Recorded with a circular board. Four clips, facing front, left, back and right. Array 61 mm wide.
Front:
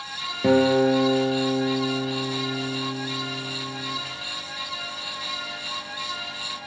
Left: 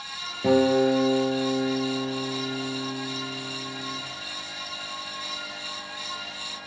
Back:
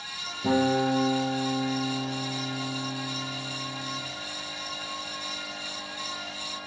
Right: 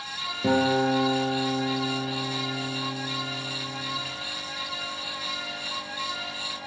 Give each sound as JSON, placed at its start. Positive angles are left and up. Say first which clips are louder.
{"t": 0.4, "sound": "a guitar", "louder": "left 3 dB, front 6 dB", "azimuth_deg": 5, "distance_m": 1.5}